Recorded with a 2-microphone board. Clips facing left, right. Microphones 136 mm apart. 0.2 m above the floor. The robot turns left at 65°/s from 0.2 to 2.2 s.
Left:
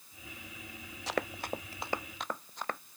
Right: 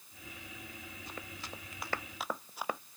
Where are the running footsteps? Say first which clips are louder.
Left 14 dB; 85° left; by 2.8 s 10° right (ahead or behind).